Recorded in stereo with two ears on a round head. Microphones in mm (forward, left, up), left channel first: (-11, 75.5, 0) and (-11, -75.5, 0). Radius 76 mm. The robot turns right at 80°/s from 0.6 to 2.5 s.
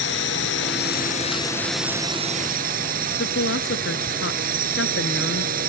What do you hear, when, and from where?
0.0 s a drone: 85° left; by 5.7 s 120° right
3.2 s a woman speaking: 80° left